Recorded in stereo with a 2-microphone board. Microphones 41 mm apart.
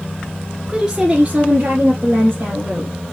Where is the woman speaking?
10° right (ahead or behind), 1.2 m; by 2.9 s 60° right (ahead or behind), 2 m.